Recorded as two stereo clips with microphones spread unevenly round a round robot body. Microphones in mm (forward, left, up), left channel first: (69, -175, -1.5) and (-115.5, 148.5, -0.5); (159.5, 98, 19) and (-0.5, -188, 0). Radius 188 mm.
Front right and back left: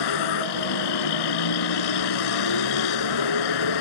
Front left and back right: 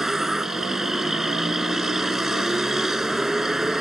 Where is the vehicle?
30° right.